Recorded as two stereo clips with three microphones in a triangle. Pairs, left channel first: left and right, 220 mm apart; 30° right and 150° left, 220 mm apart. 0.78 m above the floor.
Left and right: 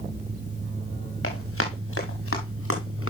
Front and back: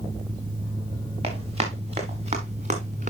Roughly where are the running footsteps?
Left.